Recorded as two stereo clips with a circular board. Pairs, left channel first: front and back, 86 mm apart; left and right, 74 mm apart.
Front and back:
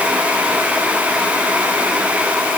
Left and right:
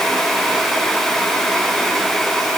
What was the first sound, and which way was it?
Only background noise.